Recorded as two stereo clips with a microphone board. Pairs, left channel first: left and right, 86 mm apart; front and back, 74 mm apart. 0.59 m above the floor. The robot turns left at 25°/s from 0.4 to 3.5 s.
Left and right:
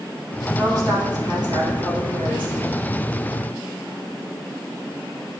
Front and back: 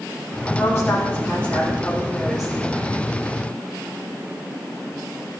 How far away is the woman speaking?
About 2.0 m.